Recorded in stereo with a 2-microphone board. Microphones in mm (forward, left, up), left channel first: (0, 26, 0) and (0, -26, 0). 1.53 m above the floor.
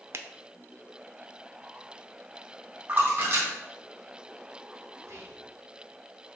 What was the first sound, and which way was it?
A finger snap, 50° right (ahead or behind).